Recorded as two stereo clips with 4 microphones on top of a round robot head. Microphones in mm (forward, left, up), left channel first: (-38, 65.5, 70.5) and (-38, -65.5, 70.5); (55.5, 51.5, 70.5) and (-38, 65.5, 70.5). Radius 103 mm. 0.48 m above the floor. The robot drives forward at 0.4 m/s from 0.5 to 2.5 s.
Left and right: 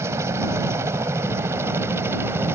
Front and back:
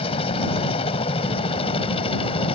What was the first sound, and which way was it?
A helicopter, 20° right.